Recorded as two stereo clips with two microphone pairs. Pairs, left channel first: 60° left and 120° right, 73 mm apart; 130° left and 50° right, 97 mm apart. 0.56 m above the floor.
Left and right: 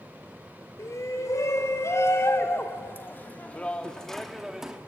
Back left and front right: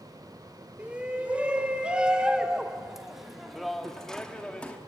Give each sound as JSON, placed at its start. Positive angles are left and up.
{"t": 0.8, "sound": "a shout", "azimuth_deg": 25, "distance_m": 2.5}